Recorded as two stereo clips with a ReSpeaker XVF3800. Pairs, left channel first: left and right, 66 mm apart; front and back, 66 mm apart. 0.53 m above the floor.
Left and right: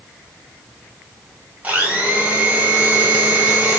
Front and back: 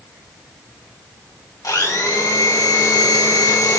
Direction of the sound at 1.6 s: 20° right.